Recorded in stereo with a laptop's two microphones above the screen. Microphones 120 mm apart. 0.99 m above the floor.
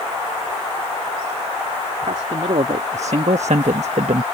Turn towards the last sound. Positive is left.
turn(degrees=-65)  # may be behind; listen again after turning